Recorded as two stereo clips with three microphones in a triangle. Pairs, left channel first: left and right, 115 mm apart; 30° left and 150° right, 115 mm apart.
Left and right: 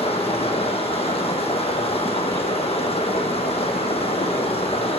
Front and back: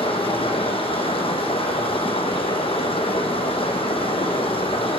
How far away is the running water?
About 0.8 m.